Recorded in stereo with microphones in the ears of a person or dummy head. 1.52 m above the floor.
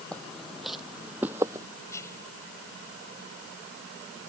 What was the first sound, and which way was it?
Footsteps, 5° left (ahead or behind).